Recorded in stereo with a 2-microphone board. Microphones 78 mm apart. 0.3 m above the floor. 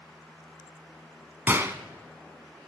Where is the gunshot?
30° right (ahead or behind), 1.1 m.